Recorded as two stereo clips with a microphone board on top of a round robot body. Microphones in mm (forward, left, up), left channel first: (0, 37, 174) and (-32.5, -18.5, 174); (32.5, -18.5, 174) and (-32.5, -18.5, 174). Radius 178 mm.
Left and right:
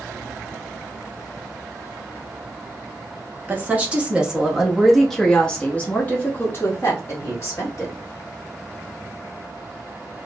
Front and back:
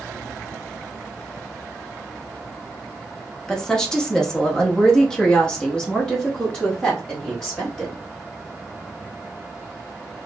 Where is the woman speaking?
75° right, 1.5 m; by 8.0 s 80° left, 1.9 m.